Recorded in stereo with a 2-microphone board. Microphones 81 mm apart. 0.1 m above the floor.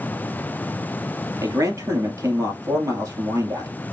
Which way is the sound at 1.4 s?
45° right (ahead or behind).